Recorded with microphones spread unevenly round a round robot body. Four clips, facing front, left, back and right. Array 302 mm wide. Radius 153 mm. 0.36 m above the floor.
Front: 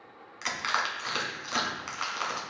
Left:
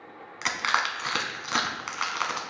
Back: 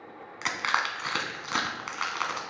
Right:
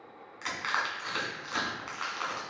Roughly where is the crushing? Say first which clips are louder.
Left 6 dB, back 2 dB; behind left.